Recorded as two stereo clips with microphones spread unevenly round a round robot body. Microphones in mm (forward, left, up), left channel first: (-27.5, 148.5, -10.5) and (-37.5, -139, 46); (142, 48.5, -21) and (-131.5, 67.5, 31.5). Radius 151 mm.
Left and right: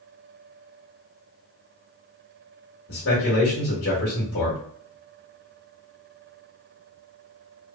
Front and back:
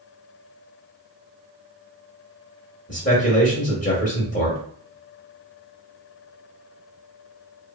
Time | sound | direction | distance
2.9 | a man speaking | 50° left | 1.2 m